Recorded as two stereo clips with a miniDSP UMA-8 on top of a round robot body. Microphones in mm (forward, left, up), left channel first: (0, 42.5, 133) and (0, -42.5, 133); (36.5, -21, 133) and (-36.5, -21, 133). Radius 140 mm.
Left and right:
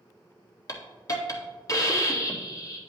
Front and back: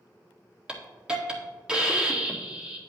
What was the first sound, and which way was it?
A hiss, 110° left.